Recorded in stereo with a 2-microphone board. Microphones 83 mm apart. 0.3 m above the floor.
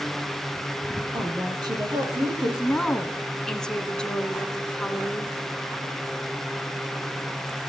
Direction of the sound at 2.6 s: 10° left (ahead or behind).